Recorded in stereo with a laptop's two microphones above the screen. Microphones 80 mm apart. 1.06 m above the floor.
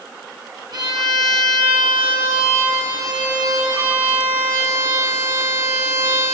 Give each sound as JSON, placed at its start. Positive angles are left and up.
{"t": 0.7, "sound": "a violin", "side_deg": -60, "distance_m": 1.2}